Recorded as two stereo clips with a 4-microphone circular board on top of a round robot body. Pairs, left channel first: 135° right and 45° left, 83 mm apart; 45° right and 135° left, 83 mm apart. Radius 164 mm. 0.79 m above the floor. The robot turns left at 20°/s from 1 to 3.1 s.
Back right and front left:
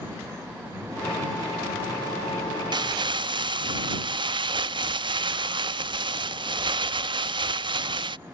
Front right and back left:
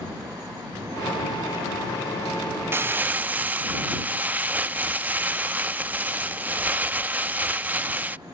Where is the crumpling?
75° left; by 8.2 s 65° left.